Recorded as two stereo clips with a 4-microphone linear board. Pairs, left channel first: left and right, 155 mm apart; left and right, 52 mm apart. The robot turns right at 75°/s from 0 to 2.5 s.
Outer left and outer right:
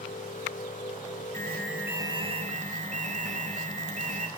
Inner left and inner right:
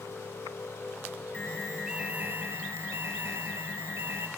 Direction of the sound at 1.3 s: 155° left.